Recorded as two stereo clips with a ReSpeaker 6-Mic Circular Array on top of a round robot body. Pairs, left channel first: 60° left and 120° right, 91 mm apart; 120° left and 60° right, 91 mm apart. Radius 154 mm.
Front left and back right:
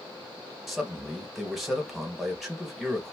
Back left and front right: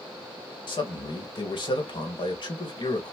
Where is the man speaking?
150° left, 1.3 m.